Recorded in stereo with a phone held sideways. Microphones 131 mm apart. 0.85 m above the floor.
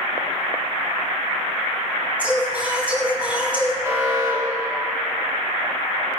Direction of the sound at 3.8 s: 20° right (ahead or behind).